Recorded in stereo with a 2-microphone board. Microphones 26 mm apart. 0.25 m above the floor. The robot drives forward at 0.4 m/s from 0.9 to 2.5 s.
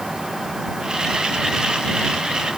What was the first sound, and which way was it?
Only background noise.